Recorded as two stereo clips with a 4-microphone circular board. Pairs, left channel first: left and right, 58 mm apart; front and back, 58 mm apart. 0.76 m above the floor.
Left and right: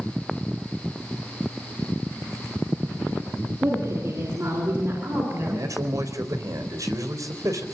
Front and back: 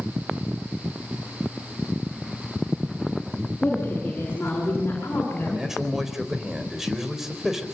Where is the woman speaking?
60° right, 8 m; by 5.7 s 50° right, 7.5 m.